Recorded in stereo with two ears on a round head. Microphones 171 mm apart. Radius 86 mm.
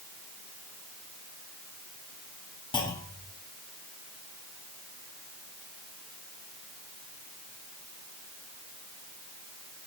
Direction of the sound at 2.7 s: 25° left (ahead or behind).